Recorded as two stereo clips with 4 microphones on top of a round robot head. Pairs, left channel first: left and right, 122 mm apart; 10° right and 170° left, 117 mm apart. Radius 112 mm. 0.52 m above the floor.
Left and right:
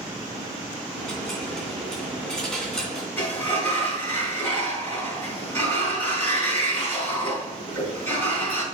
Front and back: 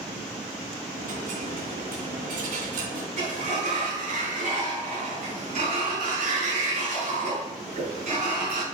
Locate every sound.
0.9 s a dropped coin: 175° left, 2.5 m
3.2 s a sliding door: 165° left, 4.5 m